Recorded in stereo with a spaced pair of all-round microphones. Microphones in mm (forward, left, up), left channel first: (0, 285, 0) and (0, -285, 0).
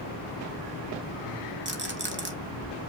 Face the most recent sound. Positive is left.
turn(degrees=-20)  # may be behind; listen again after turning